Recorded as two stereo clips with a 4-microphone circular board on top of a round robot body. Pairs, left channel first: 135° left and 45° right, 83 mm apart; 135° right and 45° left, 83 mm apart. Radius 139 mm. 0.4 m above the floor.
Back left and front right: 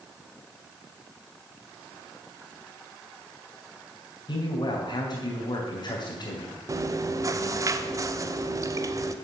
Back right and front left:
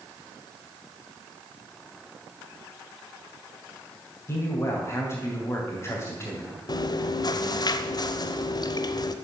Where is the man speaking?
170° left, 3 m.